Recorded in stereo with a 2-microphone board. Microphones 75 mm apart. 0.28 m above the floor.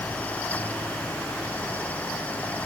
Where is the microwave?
I don't hear a microwave.